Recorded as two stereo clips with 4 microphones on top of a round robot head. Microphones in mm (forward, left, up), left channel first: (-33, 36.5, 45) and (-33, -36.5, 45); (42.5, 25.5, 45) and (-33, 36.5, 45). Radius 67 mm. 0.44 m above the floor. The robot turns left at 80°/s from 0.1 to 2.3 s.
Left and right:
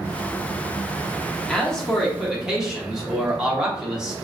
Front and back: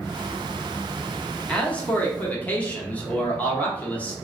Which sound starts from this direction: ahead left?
A man speaking, at 1.5 s.